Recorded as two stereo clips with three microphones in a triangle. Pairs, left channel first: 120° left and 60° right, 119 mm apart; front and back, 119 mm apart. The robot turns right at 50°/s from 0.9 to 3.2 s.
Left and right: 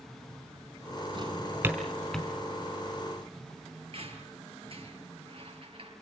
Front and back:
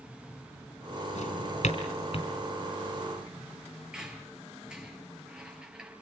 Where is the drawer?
15° right, 3.5 m; by 2.3 s 40° left, 3.5 m.